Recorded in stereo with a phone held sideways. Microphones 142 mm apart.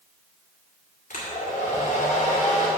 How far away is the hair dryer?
About 2.5 m.